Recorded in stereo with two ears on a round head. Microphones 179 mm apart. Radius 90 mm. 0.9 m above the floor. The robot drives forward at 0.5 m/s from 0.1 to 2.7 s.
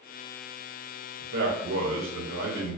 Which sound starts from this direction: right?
A man speaking, at 1.2 s.